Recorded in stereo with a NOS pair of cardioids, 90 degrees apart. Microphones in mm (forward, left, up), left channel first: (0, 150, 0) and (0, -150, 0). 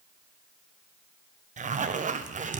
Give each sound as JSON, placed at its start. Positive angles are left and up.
{"t": 1.6, "sound": "a zipper", "azimuth_deg": -25, "distance_m": 0.5}